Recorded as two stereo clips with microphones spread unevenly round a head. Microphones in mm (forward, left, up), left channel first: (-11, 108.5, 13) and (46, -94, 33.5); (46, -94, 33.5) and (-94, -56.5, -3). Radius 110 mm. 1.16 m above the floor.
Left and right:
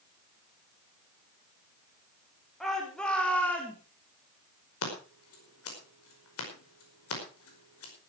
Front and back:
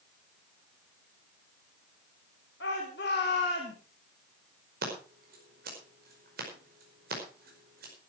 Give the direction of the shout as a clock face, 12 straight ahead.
11 o'clock.